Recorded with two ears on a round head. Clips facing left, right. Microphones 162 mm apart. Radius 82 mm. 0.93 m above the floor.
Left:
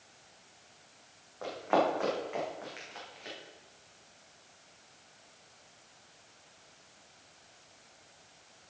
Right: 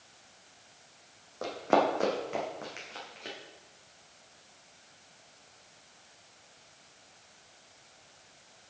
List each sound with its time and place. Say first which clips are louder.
1.4 s running footsteps: right 2 dB; 50° right (ahead or behind), 3 m